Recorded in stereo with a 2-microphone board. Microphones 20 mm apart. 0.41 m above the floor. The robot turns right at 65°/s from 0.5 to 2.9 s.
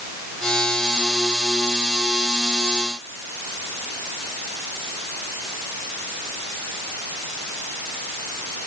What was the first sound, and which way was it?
Only background noise.